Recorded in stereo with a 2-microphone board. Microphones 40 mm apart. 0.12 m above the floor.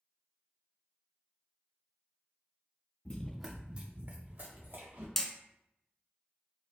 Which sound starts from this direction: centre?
Hammering, at 5.2 s.